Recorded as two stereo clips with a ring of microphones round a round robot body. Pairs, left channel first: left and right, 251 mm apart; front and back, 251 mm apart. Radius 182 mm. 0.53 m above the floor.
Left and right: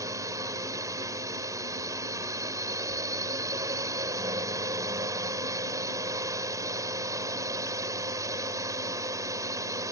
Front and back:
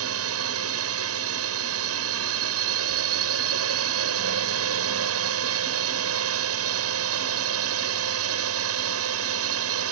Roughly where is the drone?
Behind.